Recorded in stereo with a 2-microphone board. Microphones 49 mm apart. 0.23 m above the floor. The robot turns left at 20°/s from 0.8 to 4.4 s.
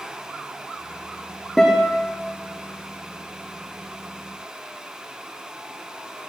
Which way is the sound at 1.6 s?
5° left (ahead or behind).